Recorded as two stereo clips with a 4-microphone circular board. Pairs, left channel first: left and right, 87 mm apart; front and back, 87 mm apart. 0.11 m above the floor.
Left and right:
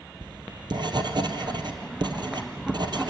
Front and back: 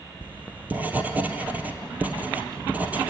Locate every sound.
0.2 s writing: 110° right, 1.6 m